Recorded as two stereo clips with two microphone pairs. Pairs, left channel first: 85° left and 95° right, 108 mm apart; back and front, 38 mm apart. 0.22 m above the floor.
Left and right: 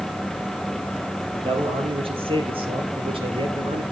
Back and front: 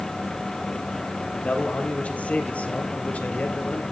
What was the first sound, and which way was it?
A man speaking, 125° right.